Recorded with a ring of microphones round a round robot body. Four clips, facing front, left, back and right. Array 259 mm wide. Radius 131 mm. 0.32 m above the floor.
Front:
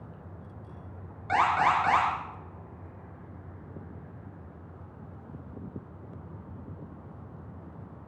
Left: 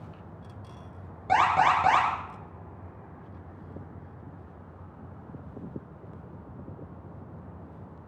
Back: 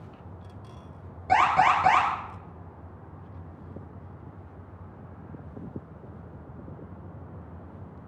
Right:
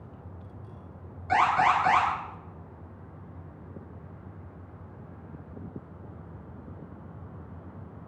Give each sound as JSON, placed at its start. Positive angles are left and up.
{"t": 1.3, "sound": "an alarm", "azimuth_deg": 130, "distance_m": 8.5}